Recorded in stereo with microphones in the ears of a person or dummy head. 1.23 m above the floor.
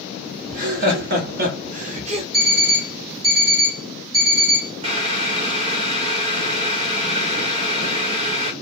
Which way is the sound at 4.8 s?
30° right (ahead or behind).